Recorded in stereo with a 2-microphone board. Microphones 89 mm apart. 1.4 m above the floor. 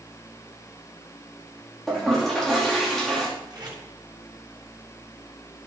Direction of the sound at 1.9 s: 5° left (ahead or behind).